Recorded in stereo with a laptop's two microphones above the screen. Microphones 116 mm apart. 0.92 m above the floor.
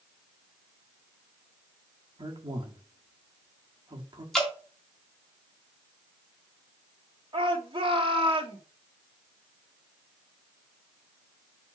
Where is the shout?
50° right (ahead or behind), 2.5 m.